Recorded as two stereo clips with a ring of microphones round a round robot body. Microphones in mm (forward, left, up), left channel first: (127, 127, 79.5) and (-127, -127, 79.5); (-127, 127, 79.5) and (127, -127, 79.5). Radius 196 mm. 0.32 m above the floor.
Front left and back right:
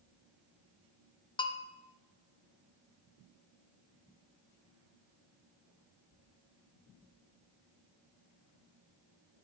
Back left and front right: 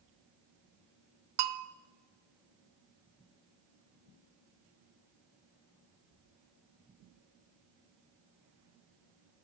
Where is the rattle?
I don't hear a rattle.